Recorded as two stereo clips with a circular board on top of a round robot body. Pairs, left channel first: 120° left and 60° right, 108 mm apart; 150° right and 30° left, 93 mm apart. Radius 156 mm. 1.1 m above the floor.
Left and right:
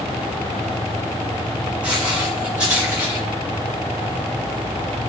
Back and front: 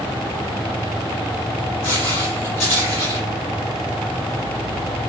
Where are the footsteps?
140° right, 2.5 m.